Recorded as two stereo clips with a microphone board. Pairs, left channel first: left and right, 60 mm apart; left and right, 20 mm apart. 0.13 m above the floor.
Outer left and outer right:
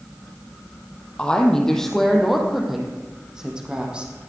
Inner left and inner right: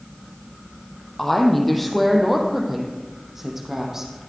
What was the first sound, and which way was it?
A woman speaking, 15° left (ahead or behind).